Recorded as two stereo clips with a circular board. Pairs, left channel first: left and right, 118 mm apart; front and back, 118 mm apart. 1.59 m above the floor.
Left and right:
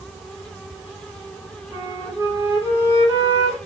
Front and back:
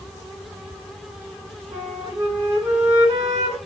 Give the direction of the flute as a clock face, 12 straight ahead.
5 o'clock.